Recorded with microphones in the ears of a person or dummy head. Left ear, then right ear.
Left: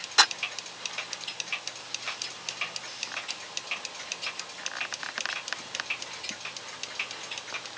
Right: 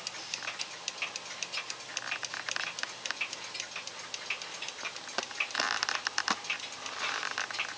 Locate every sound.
Only background noise.